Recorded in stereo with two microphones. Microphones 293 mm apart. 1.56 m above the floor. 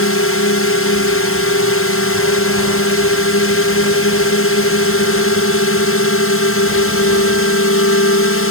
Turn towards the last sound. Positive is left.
turn(degrees=50)  # may be behind; listen again after turning